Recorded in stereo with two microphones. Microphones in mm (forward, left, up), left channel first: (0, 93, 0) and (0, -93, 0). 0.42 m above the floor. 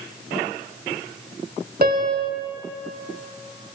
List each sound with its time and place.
1.8 s a piano: 50° right (ahead or behind), 1.0 m